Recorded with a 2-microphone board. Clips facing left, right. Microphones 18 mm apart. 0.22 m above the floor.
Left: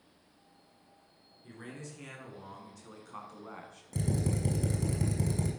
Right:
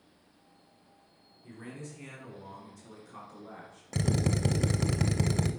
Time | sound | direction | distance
1.4 | a man speaking | 30° left (ahead or behind) | 3 m
3.9 | a drill | 45° right (ahead or behind) | 0.6 m